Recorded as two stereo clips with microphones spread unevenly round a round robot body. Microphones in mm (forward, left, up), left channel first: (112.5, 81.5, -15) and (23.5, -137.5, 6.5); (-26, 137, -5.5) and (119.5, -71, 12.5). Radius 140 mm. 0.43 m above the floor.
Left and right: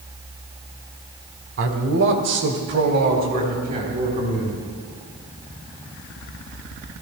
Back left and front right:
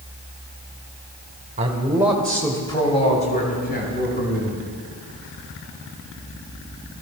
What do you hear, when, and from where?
1.6 s a man speaking: 115° right, 1.4 m; by 4.6 s 175° left, 3.5 m